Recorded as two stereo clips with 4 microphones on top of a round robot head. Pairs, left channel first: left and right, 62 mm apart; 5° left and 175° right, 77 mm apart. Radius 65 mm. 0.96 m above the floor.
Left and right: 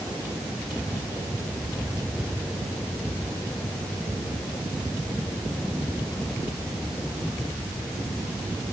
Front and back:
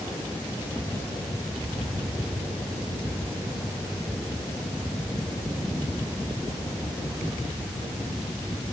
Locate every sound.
Only background noise.